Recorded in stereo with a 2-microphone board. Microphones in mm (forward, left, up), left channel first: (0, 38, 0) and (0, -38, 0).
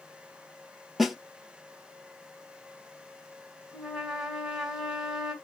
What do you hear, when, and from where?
1.0 s a snare drum: centre (ahead or behind), 0.7 m
3.7 s a trumpet: 10° right (ahead or behind), 1.6 m